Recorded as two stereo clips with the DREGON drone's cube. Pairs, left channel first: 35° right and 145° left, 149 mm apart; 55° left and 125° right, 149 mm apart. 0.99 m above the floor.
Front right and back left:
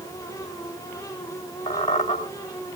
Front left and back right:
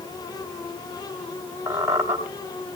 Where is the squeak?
50° right, 4 m.